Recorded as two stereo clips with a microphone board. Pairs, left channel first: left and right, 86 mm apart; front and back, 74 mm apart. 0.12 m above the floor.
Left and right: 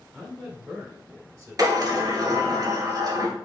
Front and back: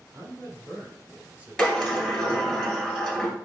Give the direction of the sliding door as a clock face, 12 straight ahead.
3 o'clock.